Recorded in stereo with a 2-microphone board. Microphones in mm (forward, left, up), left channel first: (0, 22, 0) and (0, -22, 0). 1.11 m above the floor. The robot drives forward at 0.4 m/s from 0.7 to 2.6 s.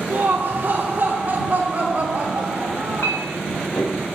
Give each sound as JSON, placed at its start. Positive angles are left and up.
{"t": 0.1, "sound": "laughter", "side_deg": -45, "distance_m": 3.0}
{"t": 3.0, "sound": "a clink", "side_deg": 65, "distance_m": 4.0}